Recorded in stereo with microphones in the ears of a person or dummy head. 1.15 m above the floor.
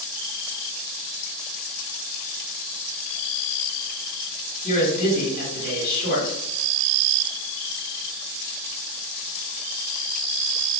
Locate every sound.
4.6 s a man speaking: 55° left (ahead or behind), 2.0 m